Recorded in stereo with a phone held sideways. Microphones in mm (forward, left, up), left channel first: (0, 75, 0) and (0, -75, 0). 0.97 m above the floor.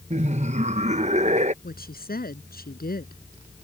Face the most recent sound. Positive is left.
turn(degrees=85)